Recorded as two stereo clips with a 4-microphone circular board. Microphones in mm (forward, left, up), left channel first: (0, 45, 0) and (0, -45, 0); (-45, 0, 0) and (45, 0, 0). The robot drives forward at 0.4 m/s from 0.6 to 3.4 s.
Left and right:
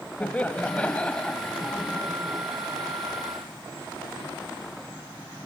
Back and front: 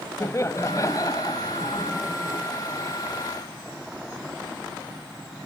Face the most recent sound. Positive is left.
turn(degrees=170)